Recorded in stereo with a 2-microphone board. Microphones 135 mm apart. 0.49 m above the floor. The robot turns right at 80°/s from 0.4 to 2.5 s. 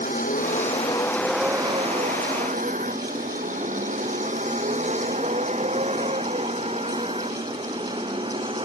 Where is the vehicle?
80° left; by 8.7 s 45° right (ahead or behind).